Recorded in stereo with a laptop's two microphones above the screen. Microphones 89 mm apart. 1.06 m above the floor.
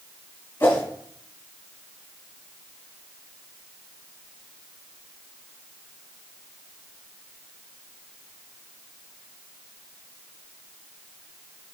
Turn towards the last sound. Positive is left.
turn(degrees=30)  # may be behind; listen again after turning